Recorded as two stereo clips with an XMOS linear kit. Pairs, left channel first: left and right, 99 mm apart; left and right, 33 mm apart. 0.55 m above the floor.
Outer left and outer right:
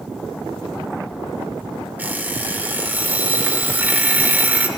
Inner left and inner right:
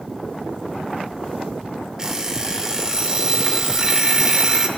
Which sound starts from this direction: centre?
An alarm clock, at 2.0 s.